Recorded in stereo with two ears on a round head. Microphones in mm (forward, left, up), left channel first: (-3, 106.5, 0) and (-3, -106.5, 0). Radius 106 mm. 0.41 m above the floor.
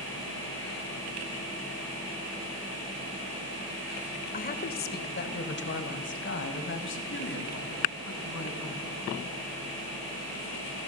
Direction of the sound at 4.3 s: 35° left (ahead or behind).